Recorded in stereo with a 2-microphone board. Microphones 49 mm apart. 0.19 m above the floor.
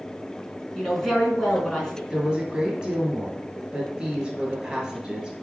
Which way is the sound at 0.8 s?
5° left (ahead or behind).